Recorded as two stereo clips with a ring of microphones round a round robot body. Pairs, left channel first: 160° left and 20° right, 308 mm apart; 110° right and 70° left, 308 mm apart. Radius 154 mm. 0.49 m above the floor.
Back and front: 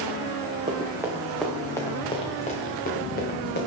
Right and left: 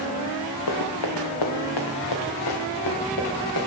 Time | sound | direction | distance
0.7 | running footsteps | 95° right | 1.8 m